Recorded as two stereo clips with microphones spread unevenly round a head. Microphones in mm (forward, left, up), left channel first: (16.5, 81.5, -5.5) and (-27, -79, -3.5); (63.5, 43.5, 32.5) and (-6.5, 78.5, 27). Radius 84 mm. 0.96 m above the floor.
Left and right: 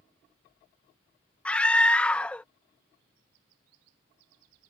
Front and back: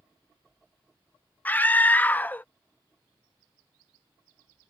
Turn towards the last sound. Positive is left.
turn(degrees=5)